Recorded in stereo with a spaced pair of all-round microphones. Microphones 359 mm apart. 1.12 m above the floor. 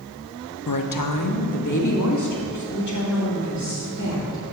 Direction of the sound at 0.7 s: 65° left (ahead or behind).